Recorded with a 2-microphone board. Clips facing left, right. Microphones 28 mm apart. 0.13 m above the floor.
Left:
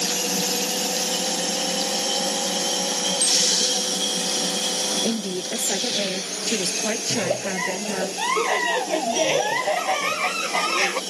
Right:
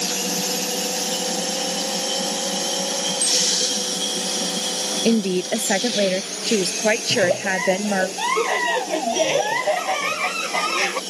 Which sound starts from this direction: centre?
A giggle, at 7.1 s.